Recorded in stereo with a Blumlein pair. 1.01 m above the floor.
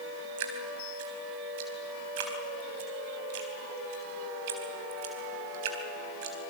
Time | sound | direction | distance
0.4 | dripping | 50° right | 4 m